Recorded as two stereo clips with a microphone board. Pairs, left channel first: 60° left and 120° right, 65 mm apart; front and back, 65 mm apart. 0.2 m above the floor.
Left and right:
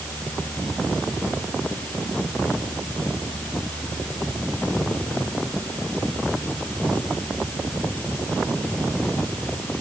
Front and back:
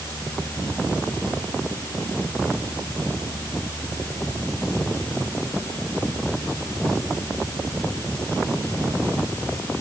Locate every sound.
Only background noise.